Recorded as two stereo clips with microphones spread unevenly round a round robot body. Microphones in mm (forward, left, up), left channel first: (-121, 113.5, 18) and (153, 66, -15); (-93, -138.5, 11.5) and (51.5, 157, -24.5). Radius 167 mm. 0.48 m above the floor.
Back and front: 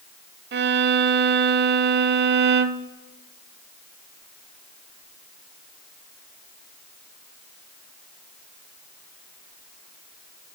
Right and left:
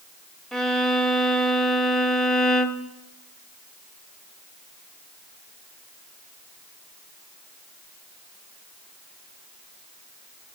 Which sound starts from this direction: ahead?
A violin, at 0.5 s.